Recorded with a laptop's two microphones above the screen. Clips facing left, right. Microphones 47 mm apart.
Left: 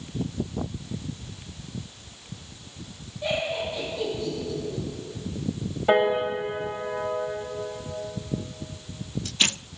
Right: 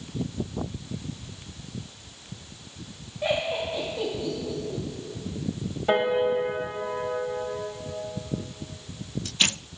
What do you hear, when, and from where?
3.2 s laughter: 40° right (ahead or behind), 2.0 m
5.9 s a piano: 10° left (ahead or behind), 2 m